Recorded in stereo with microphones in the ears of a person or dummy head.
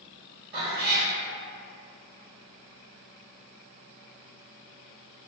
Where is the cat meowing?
55° right (ahead or behind), 1.7 m.